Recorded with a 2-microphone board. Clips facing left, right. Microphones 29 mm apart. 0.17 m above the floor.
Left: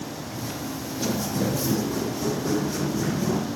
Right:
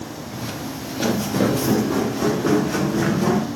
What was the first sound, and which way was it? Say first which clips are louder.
Footsteps: right 3 dB; 50° right (ahead or behind).